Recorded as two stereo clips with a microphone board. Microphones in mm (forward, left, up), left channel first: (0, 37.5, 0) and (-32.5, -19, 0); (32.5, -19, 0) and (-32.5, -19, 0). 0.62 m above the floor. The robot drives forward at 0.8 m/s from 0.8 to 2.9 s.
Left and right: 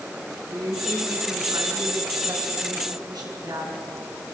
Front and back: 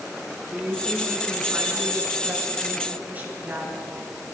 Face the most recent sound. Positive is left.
turn(degrees=-115)